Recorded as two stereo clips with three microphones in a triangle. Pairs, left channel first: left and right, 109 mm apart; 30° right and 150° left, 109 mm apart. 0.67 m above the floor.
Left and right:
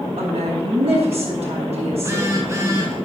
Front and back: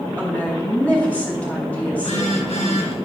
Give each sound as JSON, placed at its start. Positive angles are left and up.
{"t": 0.2, "sound": "a woman speaking", "azimuth_deg": -105, "distance_m": 5.0}
{"t": 2.0, "sound": "a phone buzzing", "azimuth_deg": -25, "distance_m": 3.5}